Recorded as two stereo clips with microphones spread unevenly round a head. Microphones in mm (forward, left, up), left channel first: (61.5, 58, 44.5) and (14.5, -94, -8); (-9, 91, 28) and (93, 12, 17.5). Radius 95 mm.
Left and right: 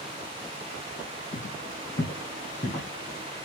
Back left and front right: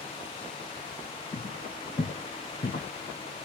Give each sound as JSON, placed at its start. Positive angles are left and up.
{"t": 1.3, "sound": "footsteps", "azimuth_deg": 80, "distance_m": 1.9}